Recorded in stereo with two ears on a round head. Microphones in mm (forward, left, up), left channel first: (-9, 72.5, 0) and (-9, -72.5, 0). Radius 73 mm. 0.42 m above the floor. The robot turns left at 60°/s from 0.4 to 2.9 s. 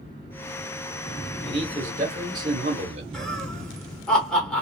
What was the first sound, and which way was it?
A man speaking, straight ahead.